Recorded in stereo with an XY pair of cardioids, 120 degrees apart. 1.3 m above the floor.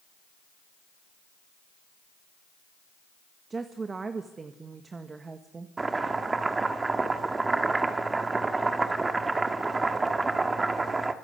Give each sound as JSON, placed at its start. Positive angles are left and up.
{"t": 3.5, "sound": "a woman speaking", "azimuth_deg": -25, "distance_m": 1.6}
{"t": 5.8, "sound": "chopping", "azimuth_deg": -20, "distance_m": 1.7}